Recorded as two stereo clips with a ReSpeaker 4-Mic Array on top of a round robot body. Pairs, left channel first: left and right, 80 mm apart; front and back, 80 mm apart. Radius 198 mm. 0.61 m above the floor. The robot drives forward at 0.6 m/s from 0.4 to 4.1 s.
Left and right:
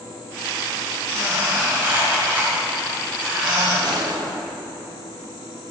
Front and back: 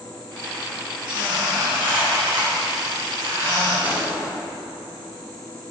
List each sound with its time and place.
1.1 s a squeak: 150° right, 1.6 m; by 3.7 s 165° right, 3 m
3.8 s a gunshot: 110° right, 1.3 m; by 4.3 s 120° right, 1.4 m